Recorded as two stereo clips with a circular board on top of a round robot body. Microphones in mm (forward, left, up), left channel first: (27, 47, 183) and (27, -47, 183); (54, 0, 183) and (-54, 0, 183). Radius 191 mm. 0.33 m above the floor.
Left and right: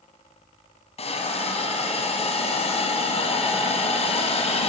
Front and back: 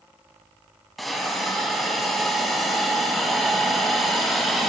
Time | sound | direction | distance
1.0 | a hiss | 90° left | 1.2 m